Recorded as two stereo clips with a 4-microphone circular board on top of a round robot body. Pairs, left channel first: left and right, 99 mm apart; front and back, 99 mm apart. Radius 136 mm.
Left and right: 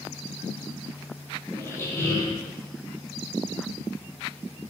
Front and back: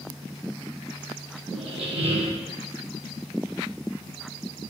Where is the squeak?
155° left, 2.5 m.